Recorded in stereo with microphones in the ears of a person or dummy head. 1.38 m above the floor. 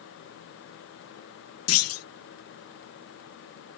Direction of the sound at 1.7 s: 75° left (ahead or behind).